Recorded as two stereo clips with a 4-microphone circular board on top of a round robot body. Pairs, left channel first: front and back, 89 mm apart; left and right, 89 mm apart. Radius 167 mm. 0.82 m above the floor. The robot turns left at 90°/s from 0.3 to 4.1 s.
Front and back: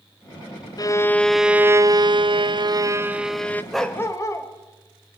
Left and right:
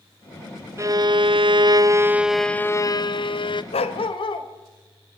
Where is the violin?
35° right, 1.4 m; by 3.6 s 70° left, 1.4 m.